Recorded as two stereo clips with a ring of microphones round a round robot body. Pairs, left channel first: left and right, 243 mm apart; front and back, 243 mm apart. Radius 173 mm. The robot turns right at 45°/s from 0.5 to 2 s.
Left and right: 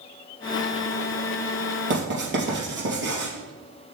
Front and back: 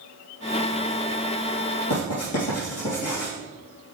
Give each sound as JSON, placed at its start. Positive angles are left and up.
{"t": 1.9, "sound": "writing", "azimuth_deg": -50, "distance_m": 3.0}